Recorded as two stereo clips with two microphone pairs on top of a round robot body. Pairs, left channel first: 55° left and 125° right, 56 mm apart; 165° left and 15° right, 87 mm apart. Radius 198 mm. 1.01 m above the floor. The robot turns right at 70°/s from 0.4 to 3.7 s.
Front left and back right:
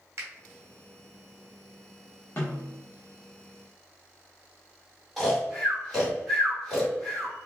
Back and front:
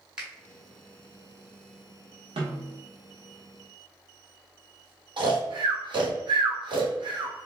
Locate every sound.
0.2 s a finger snap: 90° right, 1.4 m
2.4 s a snare drum: straight ahead, 1.0 m; by 2.8 s 35° left, 1.0 m
5.2 s snoring: 30° right, 1.7 m